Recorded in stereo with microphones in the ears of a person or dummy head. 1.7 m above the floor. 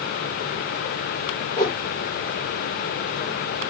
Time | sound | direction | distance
1.6 | a whoosh | 20° left (ahead or behind) | 0.7 m